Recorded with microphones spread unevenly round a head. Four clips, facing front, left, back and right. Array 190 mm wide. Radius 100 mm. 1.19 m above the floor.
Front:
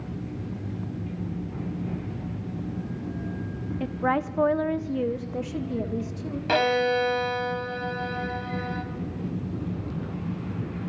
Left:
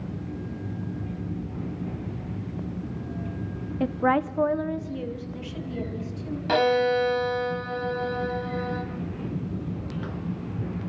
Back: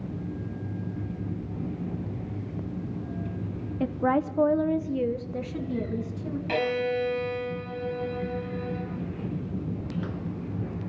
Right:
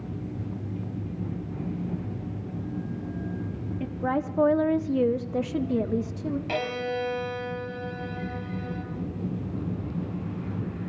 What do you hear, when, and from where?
3.8 s a woman speaking: 140° left, 0.7 m; by 6.4 s 95° right, 2 m
6.5 s a violin: 35° left, 3.5 m